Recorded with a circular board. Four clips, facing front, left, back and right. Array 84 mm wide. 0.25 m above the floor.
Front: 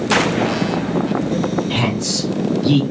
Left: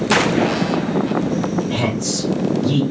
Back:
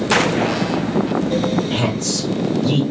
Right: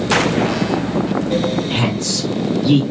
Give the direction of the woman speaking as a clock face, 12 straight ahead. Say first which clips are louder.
Right 1 dB, even; 1 o'clock.